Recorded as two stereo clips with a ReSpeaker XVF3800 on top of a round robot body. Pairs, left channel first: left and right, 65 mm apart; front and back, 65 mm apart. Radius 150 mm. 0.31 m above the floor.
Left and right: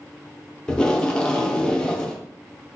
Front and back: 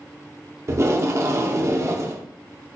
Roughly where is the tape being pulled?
Behind.